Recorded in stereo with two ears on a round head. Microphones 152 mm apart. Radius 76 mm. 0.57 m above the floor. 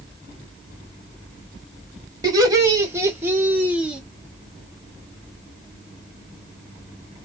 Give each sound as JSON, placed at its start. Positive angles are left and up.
{"t": 2.2, "sound": "laughter", "side_deg": -25, "distance_m": 2.5}